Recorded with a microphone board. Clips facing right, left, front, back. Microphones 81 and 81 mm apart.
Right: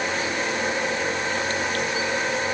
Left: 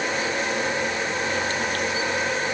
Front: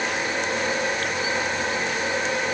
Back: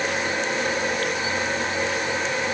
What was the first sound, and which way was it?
Only background noise.